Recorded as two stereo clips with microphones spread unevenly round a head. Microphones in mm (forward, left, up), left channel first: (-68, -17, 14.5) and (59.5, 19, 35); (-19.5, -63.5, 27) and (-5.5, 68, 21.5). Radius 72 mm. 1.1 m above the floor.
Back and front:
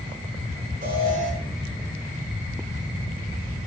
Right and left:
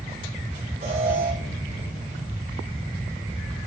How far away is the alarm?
About 7.5 m.